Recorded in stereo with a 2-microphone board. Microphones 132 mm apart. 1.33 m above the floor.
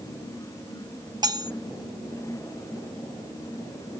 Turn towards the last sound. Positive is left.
turn(degrees=-30)  # may be behind; listen again after turning